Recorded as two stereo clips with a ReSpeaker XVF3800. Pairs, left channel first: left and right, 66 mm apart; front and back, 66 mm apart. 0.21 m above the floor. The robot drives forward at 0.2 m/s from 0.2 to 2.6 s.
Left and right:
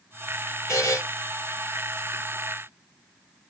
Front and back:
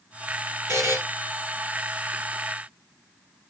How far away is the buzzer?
About 5 m.